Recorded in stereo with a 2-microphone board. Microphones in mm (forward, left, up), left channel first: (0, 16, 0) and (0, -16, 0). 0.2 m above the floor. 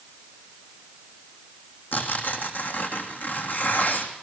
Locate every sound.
1.9 s tearing paper: 75° left (ahead or behind), 3 m